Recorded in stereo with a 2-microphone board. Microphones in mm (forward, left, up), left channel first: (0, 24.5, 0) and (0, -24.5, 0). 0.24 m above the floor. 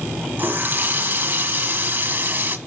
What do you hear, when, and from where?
0.4 s a running tap: 40° right (ahead or behind), 1.2 m